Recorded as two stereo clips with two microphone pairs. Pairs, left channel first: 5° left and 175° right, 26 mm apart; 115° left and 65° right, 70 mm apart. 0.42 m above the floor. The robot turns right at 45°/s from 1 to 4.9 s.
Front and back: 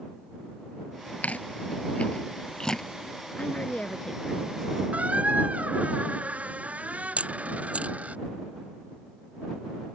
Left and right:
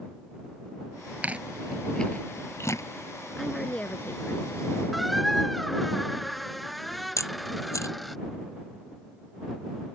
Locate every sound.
1.2 s chewing: straight ahead; by 2.8 s 75° left
3.4 s a woman speaking: 25° left; by 4.8 s 90° left
4.9 s a squeak: 155° right
7.2 s a camera shutter: 155° left